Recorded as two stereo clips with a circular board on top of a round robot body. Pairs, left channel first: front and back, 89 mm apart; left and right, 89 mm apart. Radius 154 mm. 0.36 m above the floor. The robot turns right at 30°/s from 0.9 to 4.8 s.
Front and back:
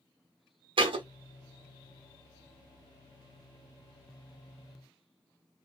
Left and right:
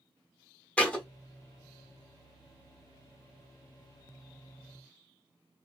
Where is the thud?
165° left, 1.1 m; by 1.1 s 170° left, 1.1 m.